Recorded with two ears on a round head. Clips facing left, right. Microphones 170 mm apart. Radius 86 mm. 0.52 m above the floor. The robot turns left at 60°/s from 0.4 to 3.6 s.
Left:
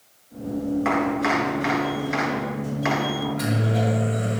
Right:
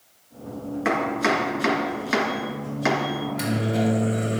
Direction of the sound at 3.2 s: 20° right (ahead or behind).